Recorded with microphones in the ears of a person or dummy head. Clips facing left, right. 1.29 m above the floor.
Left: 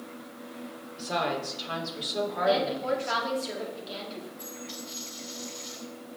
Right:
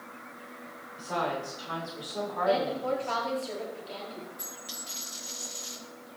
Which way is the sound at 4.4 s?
35° right (ahead or behind).